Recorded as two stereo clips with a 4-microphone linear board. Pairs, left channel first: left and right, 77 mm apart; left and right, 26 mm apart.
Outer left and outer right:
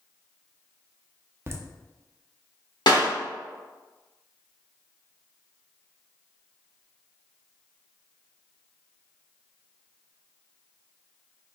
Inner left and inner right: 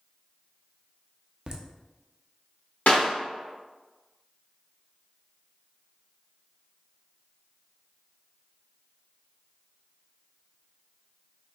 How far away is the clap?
About 1.2 m.